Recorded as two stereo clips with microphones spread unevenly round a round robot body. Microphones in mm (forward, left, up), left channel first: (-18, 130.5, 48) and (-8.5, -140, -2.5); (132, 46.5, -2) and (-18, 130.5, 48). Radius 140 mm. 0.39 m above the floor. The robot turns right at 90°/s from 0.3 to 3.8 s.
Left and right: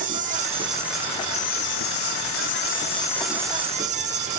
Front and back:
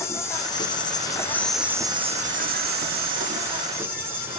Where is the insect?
70° right, 1.1 m; by 4.4 s 115° right, 1.1 m.